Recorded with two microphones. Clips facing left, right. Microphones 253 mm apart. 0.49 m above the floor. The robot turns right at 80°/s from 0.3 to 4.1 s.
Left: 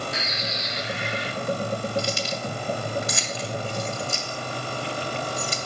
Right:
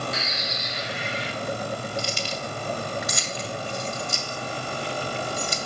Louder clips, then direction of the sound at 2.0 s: Left 3 dB; 55° left (ahead or behind).